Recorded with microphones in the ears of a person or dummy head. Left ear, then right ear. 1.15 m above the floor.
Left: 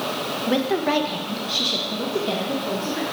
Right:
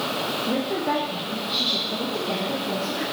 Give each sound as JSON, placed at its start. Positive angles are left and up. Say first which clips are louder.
{"t": 0.5, "sound": "a woman speaking", "louder": "left 7 dB", "side_deg": 55, "distance_m": 0.9}